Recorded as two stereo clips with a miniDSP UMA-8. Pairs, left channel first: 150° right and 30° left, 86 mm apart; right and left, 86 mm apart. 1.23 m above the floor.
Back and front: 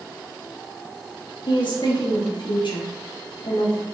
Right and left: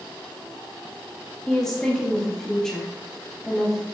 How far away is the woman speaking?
About 1.8 m.